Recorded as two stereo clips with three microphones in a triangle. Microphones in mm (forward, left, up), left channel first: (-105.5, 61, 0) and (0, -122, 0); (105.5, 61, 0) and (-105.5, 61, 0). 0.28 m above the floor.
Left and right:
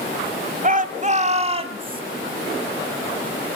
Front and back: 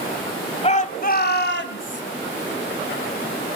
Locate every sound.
0.6 s a shout: 40° right, 1.4 m; by 2.0 s straight ahead, 2 m